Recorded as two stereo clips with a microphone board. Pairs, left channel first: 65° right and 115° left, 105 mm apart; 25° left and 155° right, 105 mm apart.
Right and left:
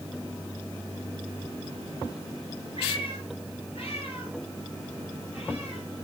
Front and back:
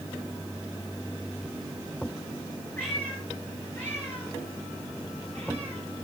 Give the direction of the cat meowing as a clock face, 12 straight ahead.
2 o'clock.